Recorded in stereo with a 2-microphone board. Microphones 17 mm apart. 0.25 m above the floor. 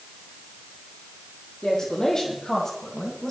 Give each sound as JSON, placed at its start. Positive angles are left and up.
{"t": 1.6, "sound": "a woman speaking", "side_deg": 45, "distance_m": 9.5}